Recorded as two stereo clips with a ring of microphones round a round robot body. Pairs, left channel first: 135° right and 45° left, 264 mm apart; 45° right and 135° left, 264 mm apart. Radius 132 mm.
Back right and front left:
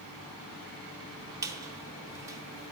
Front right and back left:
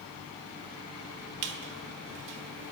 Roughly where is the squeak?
Behind left.